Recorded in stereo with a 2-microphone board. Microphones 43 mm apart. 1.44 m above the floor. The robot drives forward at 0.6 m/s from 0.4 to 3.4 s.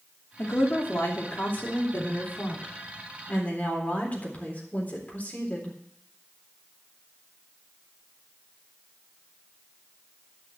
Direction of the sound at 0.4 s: 65° left (ahead or behind).